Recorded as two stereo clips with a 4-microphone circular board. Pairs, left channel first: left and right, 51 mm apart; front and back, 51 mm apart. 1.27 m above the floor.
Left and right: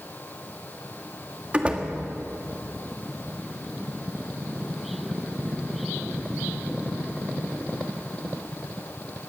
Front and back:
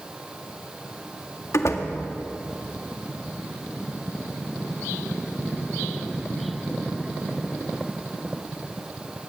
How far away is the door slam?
About 1.8 m.